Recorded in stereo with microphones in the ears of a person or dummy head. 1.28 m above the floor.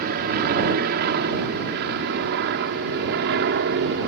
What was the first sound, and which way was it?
An aircraft, 50° right (ahead or behind).